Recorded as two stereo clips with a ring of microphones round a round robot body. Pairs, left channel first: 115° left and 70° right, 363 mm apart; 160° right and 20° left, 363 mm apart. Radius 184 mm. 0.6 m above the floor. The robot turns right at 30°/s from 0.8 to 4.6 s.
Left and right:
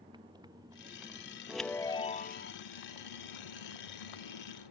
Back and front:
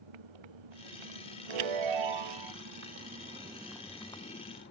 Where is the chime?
20° left; by 2.5 s 50° left.